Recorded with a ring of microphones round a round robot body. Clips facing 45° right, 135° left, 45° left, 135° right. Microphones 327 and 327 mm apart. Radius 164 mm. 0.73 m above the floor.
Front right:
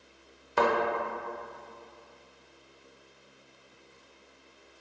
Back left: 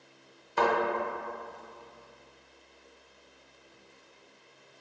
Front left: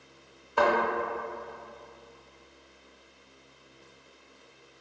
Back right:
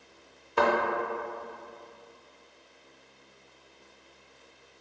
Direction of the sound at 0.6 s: 70° right.